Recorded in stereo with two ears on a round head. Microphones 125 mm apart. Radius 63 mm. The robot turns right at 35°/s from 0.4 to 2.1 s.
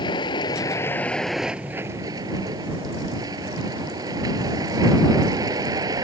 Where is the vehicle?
145° left; by 6.0 s 155° right.